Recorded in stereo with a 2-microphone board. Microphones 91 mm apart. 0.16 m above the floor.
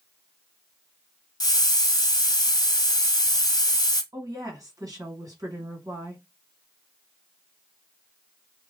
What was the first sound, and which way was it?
A hiss, 45° left (ahead or behind).